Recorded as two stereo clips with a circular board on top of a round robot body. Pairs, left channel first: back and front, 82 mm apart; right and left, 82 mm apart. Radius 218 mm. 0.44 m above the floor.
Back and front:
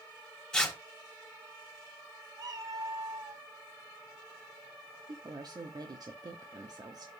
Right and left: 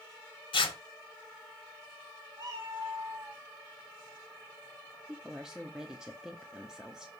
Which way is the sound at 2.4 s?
45° left.